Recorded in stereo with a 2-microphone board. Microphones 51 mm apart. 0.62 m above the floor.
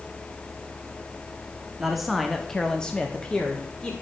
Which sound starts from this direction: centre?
A man speaking, at 1.8 s.